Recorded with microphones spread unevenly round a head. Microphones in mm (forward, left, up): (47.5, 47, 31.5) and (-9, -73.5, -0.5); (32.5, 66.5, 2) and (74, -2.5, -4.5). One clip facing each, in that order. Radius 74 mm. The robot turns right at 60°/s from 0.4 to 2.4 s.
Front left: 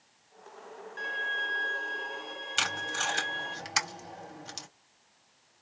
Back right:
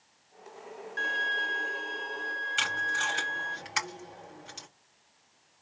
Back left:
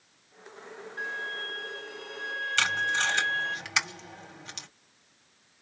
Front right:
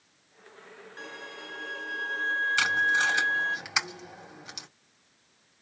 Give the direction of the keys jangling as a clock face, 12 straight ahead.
No keys jangling in this recording.